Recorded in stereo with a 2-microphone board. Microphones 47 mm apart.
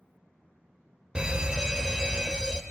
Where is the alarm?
20° right (ahead or behind), 0.7 m.